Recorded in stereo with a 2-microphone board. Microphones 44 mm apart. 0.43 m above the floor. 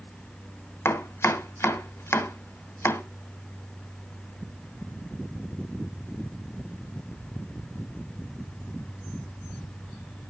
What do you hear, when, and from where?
0.8 s chopping: 75° left (ahead or behind), 1.5 m